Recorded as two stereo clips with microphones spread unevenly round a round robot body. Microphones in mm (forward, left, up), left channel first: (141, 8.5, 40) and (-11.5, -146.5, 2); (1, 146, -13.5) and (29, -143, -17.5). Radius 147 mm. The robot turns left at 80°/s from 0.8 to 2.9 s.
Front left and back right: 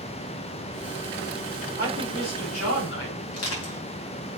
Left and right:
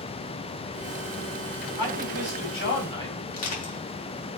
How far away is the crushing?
About 4 m.